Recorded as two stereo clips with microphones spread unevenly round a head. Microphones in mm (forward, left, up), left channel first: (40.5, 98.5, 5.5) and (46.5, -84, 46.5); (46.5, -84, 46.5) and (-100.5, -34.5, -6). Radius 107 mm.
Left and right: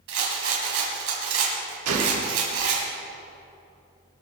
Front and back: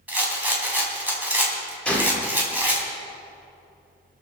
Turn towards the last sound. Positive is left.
turn(degrees=-100)